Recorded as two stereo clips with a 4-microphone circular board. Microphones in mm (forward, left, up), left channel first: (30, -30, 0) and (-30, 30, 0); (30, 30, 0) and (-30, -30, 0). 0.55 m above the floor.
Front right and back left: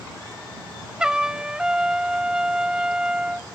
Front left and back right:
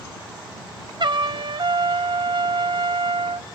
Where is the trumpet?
145° right.